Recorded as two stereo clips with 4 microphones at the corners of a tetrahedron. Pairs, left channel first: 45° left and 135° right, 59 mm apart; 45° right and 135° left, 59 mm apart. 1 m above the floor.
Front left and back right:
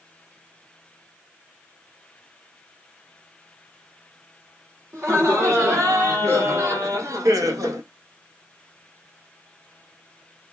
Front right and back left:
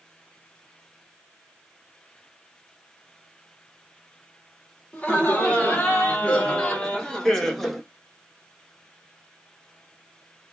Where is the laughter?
105° right, 2.5 m; by 7.8 s 135° right, 1.1 m.